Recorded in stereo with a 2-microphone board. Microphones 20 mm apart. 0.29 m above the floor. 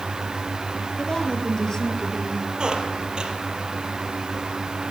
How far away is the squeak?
About 4 m.